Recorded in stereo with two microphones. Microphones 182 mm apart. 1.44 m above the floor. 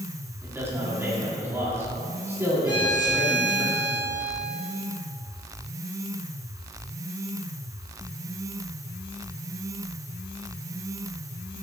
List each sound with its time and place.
0.4 s a man speaking: 15° right (ahead or behind), 3.5 m
2.6 s a violin: 20° left (ahead or behind), 3 m